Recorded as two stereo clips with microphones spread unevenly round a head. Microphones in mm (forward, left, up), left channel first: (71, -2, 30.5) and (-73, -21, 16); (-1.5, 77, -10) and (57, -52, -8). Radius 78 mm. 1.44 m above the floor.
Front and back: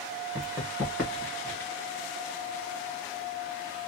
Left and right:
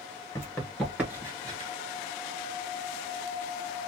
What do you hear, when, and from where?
0.3 s running footsteps: 125° left, 1.4 m; by 1.7 s 45° right, 1.7 m